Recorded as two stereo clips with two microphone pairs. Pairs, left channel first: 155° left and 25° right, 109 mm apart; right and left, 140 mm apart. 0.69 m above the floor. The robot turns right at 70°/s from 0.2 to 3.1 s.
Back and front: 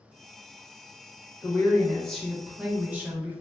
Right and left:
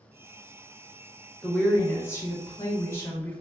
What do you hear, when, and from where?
1.4 s a woman speaking: 165° right, 0.8 m; by 3.4 s 45° right, 0.8 m